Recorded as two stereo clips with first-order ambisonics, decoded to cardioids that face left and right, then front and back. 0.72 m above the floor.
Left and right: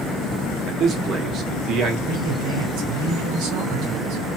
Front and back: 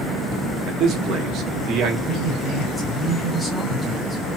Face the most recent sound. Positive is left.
turn(degrees=-85)